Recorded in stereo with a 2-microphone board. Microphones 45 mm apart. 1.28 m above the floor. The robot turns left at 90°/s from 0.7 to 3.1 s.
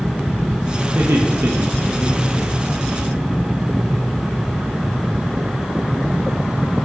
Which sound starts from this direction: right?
Laughter, at 0.9 s.